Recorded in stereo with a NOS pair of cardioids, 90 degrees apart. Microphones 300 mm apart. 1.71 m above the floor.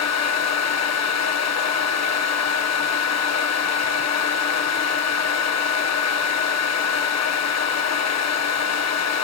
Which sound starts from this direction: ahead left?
A fan, at 0.0 s.